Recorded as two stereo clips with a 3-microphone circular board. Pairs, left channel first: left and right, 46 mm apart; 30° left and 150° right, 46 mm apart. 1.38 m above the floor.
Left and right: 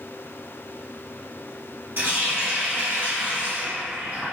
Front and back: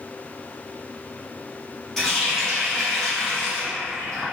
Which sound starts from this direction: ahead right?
A running tap, at 2.0 s.